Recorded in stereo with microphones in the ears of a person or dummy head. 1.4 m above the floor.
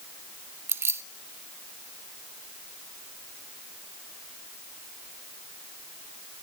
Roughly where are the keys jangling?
Centre.